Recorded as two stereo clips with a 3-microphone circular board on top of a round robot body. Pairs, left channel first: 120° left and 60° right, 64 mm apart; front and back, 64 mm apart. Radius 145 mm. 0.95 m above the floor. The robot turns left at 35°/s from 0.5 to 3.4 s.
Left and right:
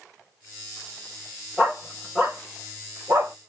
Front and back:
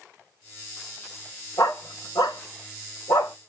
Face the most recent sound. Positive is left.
turn(degrees=-30)